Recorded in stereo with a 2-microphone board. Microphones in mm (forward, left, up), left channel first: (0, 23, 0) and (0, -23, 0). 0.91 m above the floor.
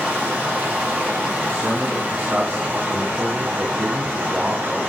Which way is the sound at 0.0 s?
25° right (ahead or behind).